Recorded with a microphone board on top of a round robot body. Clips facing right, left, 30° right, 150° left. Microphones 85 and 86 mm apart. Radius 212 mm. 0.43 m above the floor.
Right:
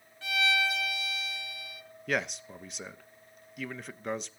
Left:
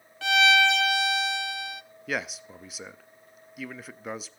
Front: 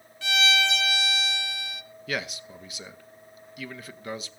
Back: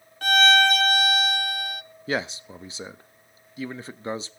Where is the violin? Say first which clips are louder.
Left 9 dB, back 7 dB; 110° left, 0.5 m.